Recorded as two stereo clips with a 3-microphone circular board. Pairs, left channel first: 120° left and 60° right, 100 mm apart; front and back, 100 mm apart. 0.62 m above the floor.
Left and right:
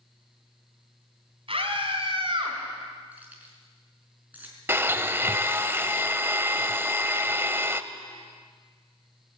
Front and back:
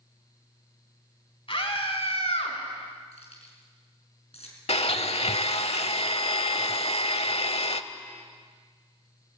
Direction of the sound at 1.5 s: 30° right.